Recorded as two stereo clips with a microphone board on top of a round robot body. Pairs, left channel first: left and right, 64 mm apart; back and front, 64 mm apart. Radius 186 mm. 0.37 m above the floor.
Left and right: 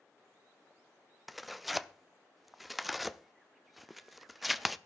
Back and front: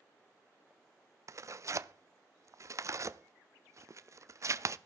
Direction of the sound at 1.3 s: 5° right.